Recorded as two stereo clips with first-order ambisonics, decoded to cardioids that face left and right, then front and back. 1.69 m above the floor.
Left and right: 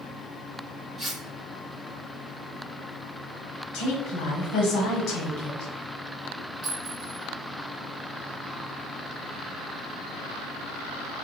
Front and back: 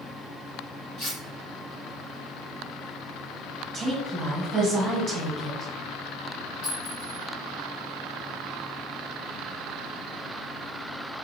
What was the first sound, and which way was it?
Cutlery clinking, 10° right.